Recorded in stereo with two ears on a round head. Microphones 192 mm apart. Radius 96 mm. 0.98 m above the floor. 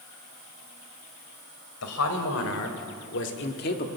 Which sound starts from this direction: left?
A man speaking, at 1.8 s.